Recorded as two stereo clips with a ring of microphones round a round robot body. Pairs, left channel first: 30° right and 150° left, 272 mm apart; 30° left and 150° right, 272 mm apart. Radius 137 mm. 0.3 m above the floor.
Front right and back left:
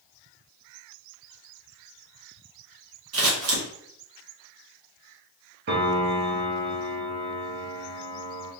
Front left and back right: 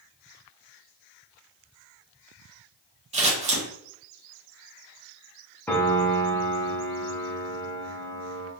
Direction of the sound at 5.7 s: 110° left.